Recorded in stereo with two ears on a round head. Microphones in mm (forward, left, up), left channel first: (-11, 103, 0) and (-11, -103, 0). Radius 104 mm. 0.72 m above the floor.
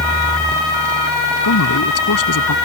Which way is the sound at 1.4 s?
80° left.